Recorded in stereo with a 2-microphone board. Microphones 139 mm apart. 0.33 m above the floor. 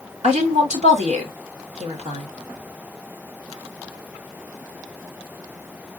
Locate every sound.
0.2 s a woman speaking: 55° right (ahead or behind), 2.0 m